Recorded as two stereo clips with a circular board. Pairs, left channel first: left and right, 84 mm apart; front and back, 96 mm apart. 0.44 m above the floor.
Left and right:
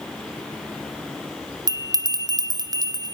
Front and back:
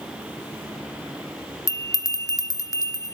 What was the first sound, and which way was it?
A bell, 55° right.